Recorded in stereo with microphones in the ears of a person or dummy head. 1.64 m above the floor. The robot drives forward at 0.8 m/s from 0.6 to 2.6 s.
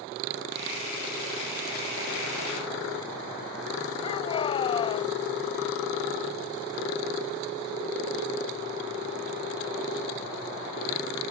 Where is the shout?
30° left (ahead or behind).